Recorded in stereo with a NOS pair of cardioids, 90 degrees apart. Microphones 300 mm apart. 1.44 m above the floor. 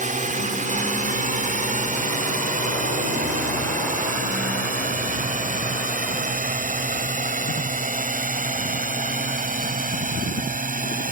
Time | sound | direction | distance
0.0 | a drone | 25° right | ?